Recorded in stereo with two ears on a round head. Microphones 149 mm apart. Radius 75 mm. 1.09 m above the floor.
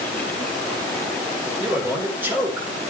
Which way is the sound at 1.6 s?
10° right (ahead or behind).